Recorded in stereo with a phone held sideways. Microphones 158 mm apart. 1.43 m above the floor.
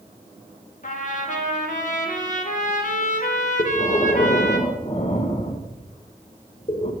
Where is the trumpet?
55° left (ahead or behind), 0.8 m.